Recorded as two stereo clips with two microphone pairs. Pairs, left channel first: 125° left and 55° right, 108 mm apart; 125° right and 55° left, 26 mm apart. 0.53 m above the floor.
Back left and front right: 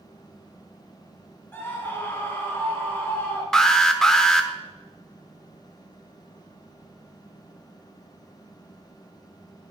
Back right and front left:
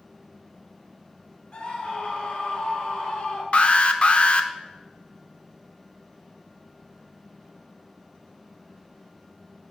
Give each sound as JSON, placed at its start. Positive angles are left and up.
{"t": 1.5, "sound": "a scream", "azimuth_deg": -170, "distance_m": 2.0}
{"t": 3.5, "sound": "an alarm", "azimuth_deg": -155, "distance_m": 0.7}